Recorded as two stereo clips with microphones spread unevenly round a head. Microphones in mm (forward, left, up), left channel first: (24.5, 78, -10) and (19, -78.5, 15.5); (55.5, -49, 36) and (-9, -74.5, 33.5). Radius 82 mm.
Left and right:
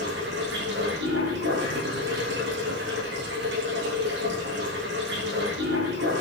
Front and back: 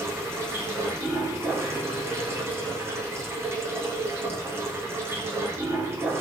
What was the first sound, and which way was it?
Running water, 110° right.